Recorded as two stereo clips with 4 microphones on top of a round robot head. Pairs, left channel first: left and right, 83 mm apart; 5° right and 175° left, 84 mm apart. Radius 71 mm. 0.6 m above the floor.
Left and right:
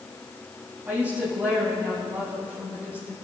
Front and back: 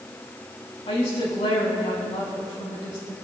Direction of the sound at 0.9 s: 15° right.